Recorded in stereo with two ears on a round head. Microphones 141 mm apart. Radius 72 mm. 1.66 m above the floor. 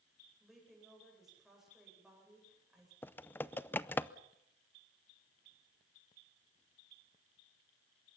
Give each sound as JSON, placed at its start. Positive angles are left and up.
{"t": 0.4, "sound": "a woman speaking", "side_deg": 0, "distance_m": 9.0}
{"t": 3.0, "sound": "typing on a keyboard", "side_deg": 15, "distance_m": 0.5}